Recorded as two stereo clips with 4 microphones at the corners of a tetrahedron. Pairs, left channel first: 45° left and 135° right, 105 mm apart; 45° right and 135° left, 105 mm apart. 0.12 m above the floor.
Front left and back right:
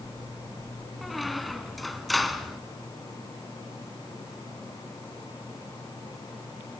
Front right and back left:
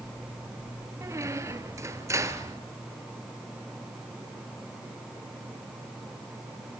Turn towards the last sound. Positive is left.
turn(degrees=135)